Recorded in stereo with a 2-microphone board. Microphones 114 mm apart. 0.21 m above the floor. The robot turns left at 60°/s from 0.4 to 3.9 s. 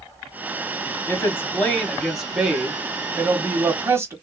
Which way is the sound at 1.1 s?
20° left (ahead or behind).